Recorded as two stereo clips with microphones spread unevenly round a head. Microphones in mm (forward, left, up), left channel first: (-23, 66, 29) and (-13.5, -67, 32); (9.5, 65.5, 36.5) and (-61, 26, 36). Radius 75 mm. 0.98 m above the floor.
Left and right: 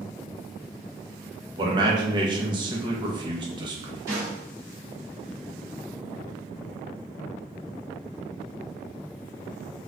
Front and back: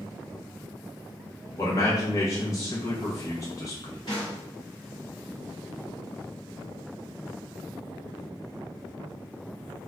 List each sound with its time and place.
1.6 s a man speaking: 30° right, 0.7 m
4.1 s a snare drum: 25° right, 1.1 m